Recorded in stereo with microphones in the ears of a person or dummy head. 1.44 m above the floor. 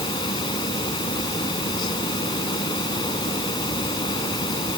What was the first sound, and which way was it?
A fan, 25° left (ahead or behind).